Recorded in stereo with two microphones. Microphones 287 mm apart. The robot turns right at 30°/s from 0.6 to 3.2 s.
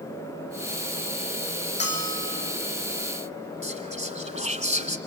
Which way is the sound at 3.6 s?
20° right (ahead or behind).